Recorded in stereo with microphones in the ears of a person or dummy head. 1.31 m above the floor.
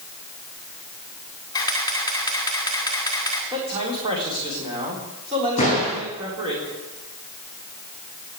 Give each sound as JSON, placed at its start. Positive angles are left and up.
{"t": 1.5, "sound": "a camera shutter", "side_deg": 20, "distance_m": 2.5}
{"t": 3.5, "sound": "a man speaking", "side_deg": -25, "distance_m": 4.0}
{"t": 5.6, "sound": "a door slam", "side_deg": 35, "distance_m": 9.0}